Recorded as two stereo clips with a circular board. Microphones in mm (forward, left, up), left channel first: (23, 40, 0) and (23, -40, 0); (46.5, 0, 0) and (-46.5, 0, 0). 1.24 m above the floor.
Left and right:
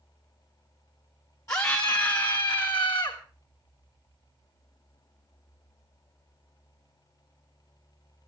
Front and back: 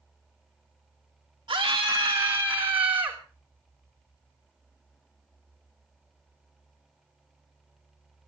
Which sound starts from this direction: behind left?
A scream, at 1.5 s.